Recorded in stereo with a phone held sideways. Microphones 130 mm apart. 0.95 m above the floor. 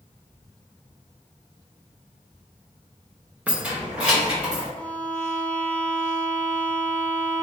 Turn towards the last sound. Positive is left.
turn(degrees=10)  # may be behind; listen again after turning